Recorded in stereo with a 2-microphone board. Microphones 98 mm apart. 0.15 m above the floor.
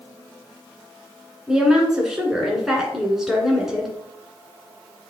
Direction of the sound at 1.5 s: 5° right (ahead or behind).